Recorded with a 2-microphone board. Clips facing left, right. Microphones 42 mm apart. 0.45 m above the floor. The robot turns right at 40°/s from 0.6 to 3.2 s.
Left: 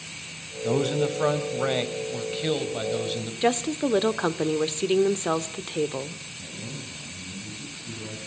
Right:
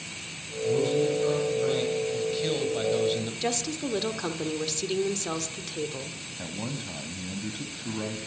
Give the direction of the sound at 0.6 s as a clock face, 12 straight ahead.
9 o'clock.